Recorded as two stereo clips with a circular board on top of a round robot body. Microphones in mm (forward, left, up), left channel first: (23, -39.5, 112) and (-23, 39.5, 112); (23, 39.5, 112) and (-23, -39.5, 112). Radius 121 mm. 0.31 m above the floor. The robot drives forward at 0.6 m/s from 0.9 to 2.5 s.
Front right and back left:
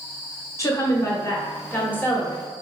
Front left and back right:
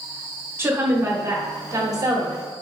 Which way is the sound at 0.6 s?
80° right.